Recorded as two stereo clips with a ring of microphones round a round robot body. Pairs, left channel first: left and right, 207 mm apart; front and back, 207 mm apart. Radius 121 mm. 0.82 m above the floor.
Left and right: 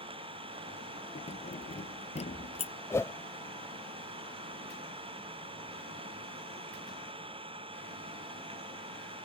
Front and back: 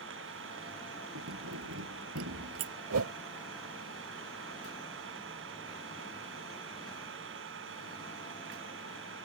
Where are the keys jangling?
150° left.